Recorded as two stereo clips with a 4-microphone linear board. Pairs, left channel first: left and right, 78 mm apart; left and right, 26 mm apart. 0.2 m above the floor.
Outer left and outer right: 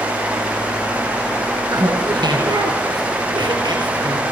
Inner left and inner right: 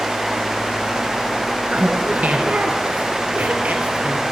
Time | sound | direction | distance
1.7 | laughter | 65° right (ahead or behind) | 3 m